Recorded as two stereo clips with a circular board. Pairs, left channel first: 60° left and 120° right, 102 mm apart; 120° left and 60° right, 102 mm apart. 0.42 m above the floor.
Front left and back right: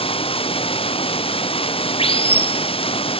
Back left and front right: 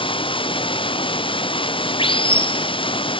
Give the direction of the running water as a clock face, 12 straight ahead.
9 o'clock.